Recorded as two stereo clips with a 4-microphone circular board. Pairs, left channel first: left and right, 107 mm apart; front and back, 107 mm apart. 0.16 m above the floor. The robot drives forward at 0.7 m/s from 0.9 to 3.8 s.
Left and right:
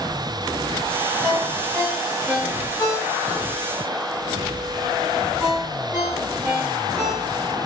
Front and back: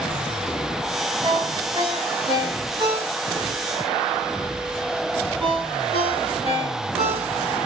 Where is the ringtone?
175° left, 4.5 m.